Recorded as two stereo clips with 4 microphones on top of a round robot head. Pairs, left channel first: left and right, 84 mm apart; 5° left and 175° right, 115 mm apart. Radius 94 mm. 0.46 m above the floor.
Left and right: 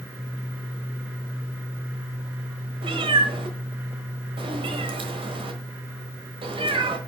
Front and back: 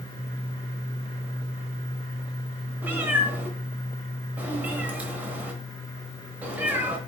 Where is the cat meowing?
100° right, 1.2 m.